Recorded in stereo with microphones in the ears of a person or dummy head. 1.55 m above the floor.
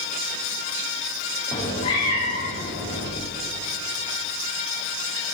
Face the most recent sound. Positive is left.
turn(degrees=45)  # may be behind; listen again after turning